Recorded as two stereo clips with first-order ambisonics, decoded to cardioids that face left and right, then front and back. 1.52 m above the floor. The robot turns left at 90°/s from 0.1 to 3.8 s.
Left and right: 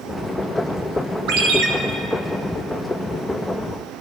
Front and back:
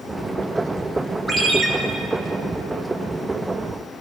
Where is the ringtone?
95° right, 0.9 m; by 1.7 s 130° right, 0.9 m.